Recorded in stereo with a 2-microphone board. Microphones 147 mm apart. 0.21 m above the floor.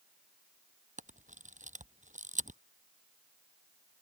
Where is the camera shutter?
55° right (ahead or behind).